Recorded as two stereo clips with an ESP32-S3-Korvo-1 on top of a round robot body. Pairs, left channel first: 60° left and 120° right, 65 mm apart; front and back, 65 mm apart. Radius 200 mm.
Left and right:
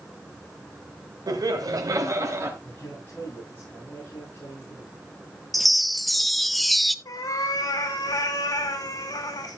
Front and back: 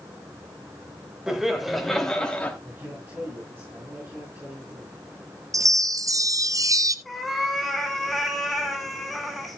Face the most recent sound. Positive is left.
turn(degrees=90)